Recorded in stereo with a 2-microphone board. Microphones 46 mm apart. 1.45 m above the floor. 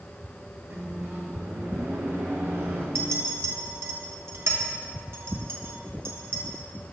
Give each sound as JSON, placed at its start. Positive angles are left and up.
{"t": 0.7, "sound": "a microwave", "side_deg": -80, "distance_m": 2.5}
{"t": 3.0, "sound": "a clink", "side_deg": -75, "distance_m": 1.2}